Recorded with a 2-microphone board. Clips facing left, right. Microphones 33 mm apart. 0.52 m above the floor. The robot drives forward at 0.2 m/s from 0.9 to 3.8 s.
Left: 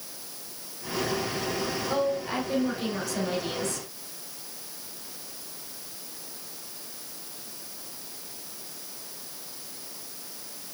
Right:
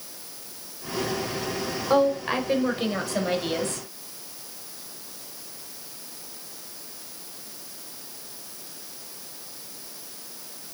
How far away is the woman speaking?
About 1.9 m.